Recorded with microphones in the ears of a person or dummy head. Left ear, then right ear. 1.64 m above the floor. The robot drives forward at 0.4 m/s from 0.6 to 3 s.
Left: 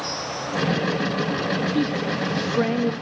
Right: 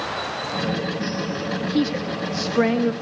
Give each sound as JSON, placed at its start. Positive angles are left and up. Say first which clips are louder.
{"t": 1.7, "sound": "a woman speaking", "louder": "even", "side_deg": -15, "distance_m": 2.5}